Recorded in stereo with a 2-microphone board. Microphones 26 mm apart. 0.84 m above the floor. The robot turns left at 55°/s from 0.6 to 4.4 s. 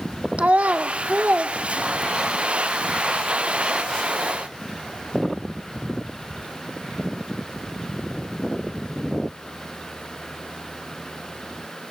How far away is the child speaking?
About 0.9 m.